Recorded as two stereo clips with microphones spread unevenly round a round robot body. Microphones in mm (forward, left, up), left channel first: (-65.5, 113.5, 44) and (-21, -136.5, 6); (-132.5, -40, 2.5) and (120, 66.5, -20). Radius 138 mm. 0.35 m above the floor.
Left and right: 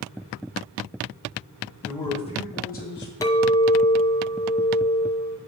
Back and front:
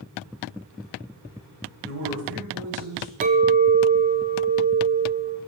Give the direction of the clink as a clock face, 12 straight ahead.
11 o'clock.